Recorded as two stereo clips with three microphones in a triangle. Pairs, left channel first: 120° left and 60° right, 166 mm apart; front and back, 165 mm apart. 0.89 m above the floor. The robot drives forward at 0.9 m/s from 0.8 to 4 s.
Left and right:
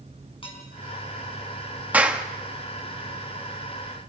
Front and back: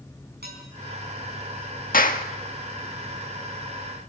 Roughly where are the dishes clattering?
Behind.